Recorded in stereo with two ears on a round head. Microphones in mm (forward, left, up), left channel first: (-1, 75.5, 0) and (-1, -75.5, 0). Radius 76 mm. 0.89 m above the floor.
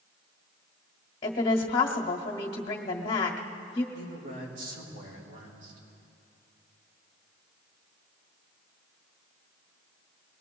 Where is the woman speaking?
35° left (ahead or behind), 1.5 m.